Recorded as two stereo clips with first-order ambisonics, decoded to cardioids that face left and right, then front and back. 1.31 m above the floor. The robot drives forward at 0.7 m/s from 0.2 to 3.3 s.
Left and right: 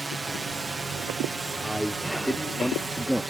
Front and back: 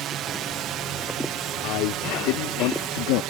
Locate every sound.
0.0 s a drone: 165° right; by 3.3 s 170° right
1.6 s a man speaking: straight ahead